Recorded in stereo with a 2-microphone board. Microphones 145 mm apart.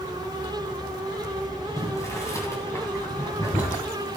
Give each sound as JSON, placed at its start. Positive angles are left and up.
{"t": 1.8, "sound": "boiling", "side_deg": 20, "distance_m": 3.5}